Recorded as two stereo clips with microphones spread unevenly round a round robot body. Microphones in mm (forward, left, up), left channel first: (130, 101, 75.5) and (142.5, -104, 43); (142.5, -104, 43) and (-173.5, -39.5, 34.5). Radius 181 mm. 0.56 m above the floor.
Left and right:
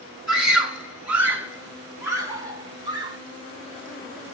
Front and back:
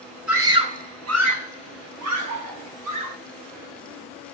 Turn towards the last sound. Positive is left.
turn(degrees=140)